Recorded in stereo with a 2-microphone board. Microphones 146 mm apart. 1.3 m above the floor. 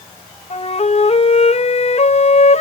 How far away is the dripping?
No dripping in this recording.